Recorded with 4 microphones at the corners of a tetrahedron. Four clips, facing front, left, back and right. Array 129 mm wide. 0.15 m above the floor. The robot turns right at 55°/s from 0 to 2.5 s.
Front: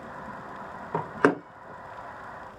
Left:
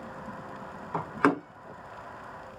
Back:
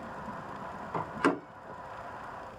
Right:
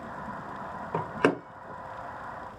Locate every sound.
0.9 s a door slam: 30° right, 1.8 m; by 1.4 s straight ahead, 1.8 m